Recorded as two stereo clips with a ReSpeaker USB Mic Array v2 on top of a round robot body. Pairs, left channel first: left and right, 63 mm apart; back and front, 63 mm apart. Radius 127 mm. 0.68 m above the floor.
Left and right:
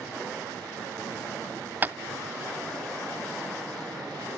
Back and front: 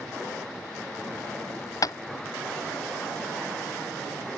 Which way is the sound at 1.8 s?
150° right.